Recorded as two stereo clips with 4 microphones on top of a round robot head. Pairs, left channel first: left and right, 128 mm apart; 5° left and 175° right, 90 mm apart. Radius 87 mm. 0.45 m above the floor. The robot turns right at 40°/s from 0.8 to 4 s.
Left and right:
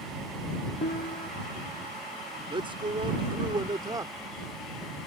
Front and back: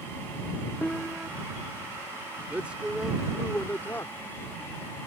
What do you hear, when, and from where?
0.8 s a piano: 90° left; by 1.3 s 110° left
2.5 s a man speaking: 110° right; by 4.1 s 50° right